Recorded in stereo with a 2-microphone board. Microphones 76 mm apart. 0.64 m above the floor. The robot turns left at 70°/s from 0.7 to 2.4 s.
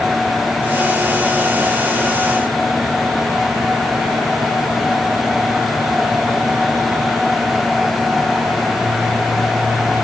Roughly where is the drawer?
I don't hear a drawer.